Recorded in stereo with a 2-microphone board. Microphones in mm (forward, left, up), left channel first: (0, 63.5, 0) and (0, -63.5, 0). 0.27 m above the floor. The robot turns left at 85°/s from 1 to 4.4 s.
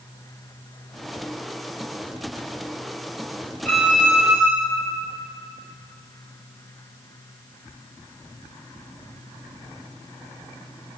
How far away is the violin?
About 3.5 m.